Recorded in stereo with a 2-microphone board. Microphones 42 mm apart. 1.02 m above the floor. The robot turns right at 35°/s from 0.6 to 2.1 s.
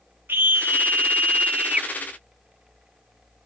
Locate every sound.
0.3 s a scream: 70° right; by 1.9 s 25° right